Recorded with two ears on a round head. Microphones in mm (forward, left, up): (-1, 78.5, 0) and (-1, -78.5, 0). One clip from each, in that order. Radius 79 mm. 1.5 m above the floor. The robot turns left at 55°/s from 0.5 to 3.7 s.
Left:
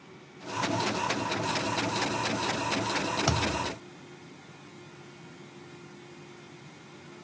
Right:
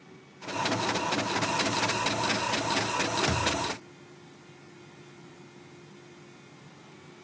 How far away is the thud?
About 1.2 m.